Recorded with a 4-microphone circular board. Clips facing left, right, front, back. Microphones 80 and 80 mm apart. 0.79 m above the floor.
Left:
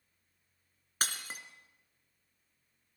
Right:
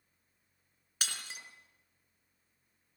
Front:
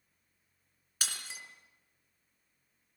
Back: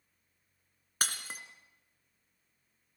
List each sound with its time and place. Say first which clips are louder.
1.0 s breaking glass: left 4 dB, back 5 dB; 135° left, 3 m